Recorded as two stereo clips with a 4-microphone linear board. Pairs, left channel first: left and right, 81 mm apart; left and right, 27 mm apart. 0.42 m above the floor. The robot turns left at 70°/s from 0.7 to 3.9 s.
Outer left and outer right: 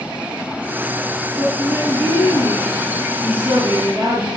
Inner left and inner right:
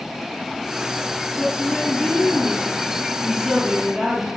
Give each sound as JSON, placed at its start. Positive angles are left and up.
{"t": 1.4, "sound": "a woman speaking", "azimuth_deg": 135, "distance_m": 8.0}